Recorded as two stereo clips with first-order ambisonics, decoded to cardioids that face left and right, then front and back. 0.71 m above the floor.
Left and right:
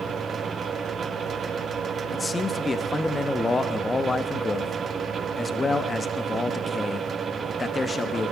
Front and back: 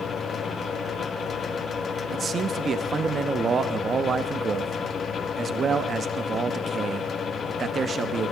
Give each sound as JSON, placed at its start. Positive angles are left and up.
{"t": 2.1, "sound": "a man speaking", "azimuth_deg": 145, "distance_m": 0.6}